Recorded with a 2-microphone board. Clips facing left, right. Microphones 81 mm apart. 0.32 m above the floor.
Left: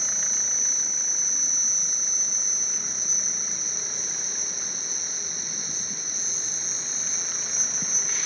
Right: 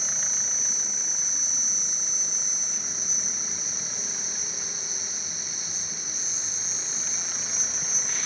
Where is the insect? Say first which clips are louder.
Even; 50° left (ahead or behind).